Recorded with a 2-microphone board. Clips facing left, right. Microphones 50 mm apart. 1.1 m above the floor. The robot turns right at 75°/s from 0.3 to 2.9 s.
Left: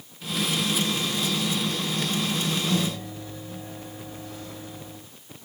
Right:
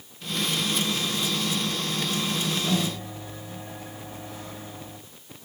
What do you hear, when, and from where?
2.7 s a microwave: 35° right (ahead or behind), 4.5 m; by 5.0 s 15° right (ahead or behind), 4.5 m